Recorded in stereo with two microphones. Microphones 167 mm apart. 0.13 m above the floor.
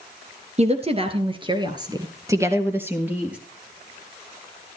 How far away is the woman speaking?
About 1.8 m.